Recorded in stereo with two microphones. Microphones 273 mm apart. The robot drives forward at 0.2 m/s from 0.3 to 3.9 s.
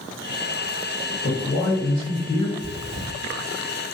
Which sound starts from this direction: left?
A man speaking, at 1.2 s.